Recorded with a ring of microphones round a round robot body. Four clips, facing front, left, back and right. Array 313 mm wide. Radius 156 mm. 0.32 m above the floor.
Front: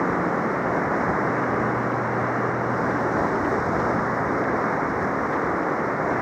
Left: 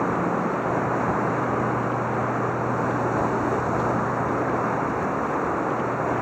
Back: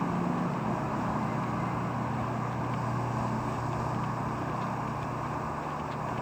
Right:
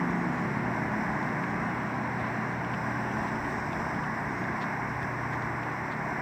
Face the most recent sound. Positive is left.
turn(degrees=35)